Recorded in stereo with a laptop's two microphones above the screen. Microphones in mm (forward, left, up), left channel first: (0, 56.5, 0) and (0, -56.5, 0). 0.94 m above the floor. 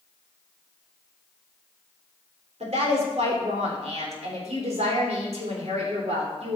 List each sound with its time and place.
2.6 s a woman speaking: 75° right (ahead or behind), 3.5 m